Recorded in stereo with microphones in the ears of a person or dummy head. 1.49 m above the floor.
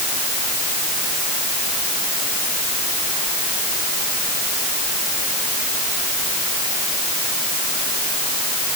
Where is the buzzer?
I don't hear a buzzer.